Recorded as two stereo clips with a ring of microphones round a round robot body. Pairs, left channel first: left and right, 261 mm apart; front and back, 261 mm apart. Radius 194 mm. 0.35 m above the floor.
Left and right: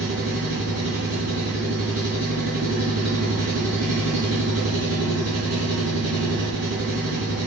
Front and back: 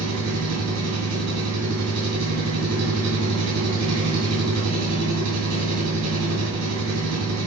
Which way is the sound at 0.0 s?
170° left.